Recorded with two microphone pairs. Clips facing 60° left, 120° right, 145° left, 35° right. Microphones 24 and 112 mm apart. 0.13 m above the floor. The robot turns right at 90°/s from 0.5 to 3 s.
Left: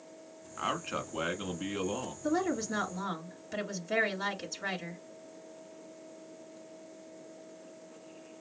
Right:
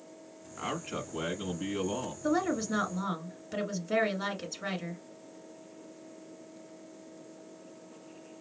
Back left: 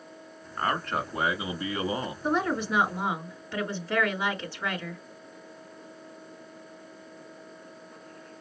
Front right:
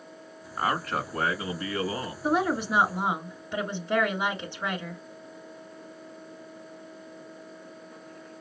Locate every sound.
0.6 s a man speaking: 20° left, 1.2 m; by 2.1 s 160° left, 1.2 m
2.2 s a woman speaking: 115° right, 1.7 m; by 5.0 s 45° right, 1.7 m